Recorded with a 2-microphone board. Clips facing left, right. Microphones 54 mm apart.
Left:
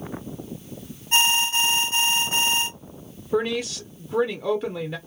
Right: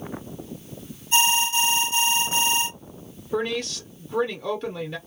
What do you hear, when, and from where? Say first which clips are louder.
1.1 s an alarm: even; 50° left (ahead or behind), 1.3 m
3.3 s a woman speaking: left 2 dB; 10° left (ahead or behind), 0.6 m